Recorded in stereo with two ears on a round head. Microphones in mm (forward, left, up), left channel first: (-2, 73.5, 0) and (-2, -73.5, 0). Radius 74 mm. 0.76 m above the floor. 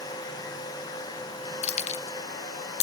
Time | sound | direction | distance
1.6 | keys jangling | 40° left (ahead or behind) | 0.5 m